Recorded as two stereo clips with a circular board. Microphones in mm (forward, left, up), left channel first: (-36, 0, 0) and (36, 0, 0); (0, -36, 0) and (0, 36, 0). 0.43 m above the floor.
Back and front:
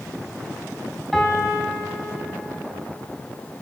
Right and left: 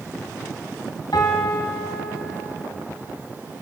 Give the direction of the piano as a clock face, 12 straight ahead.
3 o'clock.